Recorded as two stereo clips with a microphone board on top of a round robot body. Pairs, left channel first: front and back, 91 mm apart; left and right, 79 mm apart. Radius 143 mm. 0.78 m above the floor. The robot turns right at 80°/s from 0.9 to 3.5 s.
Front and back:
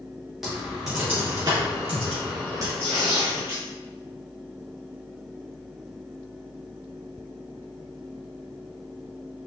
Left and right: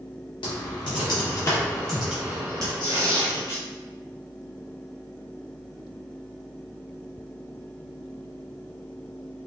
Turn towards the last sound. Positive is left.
turn(degrees=120)